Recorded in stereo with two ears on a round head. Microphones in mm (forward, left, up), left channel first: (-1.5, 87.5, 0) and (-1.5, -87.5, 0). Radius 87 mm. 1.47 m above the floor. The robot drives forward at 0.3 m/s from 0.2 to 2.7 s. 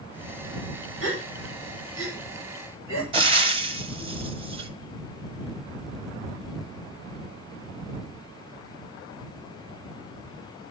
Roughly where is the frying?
Right.